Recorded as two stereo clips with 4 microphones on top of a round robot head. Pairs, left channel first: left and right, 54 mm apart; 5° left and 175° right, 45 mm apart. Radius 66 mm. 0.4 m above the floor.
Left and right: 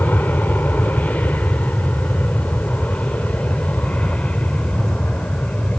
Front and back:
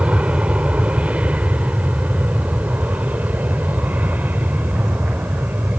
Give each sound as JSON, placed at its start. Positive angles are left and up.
{"t": 0.0, "sound": "an aircraft", "azimuth_deg": 140}